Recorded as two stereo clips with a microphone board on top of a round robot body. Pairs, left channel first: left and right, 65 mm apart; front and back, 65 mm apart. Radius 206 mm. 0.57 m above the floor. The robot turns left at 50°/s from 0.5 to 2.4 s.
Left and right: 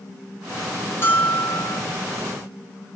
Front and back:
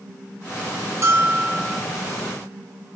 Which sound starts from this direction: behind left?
A bell, at 1.0 s.